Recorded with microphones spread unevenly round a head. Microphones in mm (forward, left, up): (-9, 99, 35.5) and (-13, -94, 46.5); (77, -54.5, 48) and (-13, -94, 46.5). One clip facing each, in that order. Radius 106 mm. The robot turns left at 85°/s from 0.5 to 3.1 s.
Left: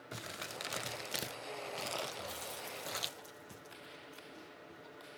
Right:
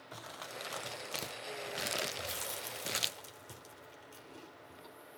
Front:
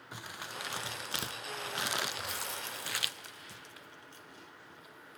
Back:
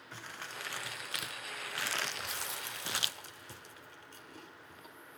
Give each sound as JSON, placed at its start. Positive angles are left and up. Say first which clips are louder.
{"t": 0.1, "sound": "crumpling", "louder": "left 1 dB, front 2 dB", "azimuth_deg": 85, "distance_m": 0.5}
{"t": 2.1, "sound": "chewing", "louder": "right 2 dB, front 2 dB", "azimuth_deg": -35, "distance_m": 3.0}